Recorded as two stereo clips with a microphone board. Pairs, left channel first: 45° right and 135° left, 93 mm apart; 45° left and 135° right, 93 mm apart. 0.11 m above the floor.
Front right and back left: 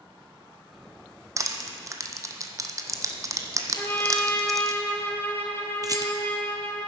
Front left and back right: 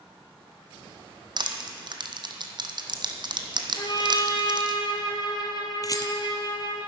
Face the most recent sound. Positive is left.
turn(degrees=90)